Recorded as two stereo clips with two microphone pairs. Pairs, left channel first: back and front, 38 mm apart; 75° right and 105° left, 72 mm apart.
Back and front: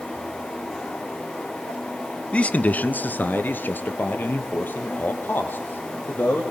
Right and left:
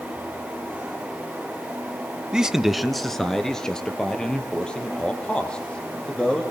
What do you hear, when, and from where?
2.3 s a man speaking: straight behind, 1.3 m; by 6.4 s 150° right, 7 m